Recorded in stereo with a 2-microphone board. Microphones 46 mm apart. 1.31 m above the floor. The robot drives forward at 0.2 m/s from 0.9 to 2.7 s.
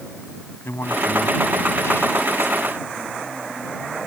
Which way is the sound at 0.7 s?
70° left (ahead or behind).